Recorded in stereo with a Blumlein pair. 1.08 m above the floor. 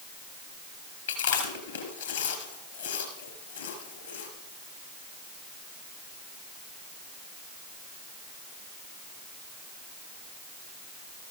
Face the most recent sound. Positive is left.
turn(degrees=70)